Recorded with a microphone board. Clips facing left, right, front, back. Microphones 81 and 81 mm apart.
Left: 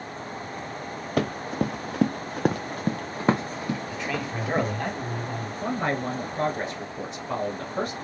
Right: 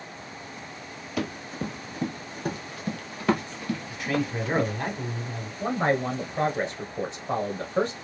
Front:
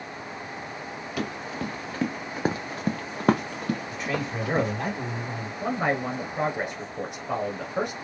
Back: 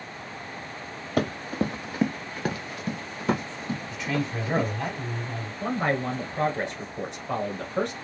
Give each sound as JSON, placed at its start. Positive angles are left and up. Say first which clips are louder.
{"t": 1.2, "sound": "running footsteps", "louder": "left 5 dB, back 6 dB", "azimuth_deg": 130, "distance_m": 1.2}
{"t": 3.9, "sound": "a man speaking", "louder": "right 2 dB, back 1 dB", "azimuth_deg": -25, "distance_m": 2.5}
{"t": 5.6, "sound": "a man speaking", "louder": "right 3 dB, even", "azimuth_deg": -65, "distance_m": 1.2}